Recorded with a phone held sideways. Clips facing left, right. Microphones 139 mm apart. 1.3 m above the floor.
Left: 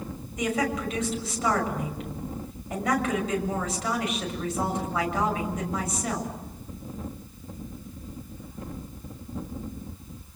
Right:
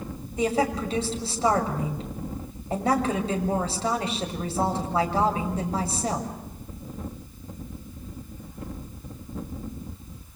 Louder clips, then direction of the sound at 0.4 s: Right 3 dB; 30° right (ahead or behind).